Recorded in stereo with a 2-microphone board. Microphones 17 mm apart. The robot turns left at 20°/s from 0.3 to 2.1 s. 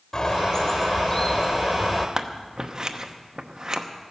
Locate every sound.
0.1 s a bird: 70° left, 1.1 m; by 2.1 s 35° left, 1.1 m
2.2 s scissors: 40° right (ahead or behind), 0.8 m